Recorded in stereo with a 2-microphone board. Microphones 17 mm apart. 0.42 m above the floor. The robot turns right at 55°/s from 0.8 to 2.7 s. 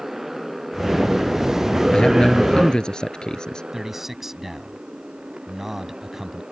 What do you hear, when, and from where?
0.0 s a motorcycle: 20° right (ahead or behind); by 6.5 s 65° right (ahead or behind)
1.9 s a man speaking: 75° left; by 3.6 s 120° left
3.7 s a man speaking: 20° right (ahead or behind)